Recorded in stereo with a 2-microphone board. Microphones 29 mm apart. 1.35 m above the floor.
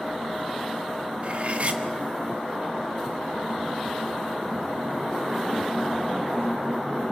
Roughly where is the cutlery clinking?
Right.